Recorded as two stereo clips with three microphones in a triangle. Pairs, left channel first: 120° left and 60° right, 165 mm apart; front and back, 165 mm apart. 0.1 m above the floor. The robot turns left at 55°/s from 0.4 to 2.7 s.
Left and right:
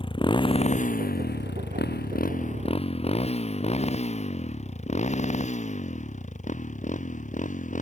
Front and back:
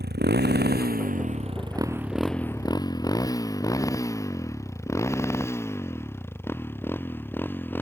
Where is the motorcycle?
Straight behind; by 7.8 s 80° left.